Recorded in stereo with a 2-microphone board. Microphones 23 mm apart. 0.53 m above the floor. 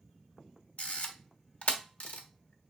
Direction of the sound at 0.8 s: 60° left (ahead or behind).